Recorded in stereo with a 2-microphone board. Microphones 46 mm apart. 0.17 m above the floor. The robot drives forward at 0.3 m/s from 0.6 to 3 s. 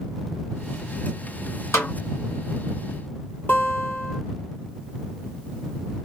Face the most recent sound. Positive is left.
turn(degrees=40)  # may be behind; listen again after turning